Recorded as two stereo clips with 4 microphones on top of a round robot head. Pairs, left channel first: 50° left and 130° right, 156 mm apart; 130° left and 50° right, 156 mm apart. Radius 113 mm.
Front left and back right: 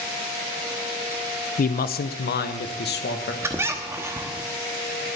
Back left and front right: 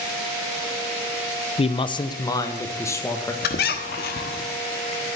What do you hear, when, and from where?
1.6 s a man speaking: 80° left, 0.6 m; by 3.3 s 55° left, 1.7 m
3.4 s a squeak: 155° left, 1.1 m